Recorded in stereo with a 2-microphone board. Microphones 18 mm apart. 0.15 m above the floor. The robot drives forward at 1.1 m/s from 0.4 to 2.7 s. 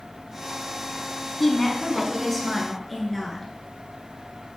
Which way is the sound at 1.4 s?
20° left (ahead or behind).